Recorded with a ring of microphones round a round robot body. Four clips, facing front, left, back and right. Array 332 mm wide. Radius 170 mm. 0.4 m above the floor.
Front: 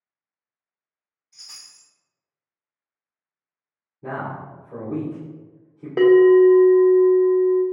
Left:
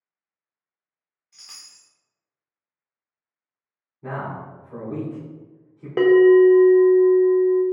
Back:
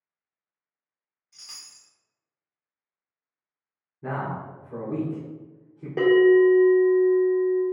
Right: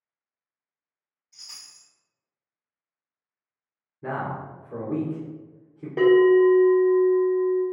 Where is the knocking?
I don't hear knocking.